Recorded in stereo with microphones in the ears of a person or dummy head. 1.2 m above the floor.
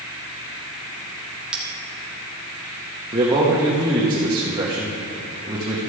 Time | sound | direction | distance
1.5 | a bell | 10° right (ahead or behind) | 1.1 m
3.1 | a man speaking | 25° right (ahead or behind) | 1.3 m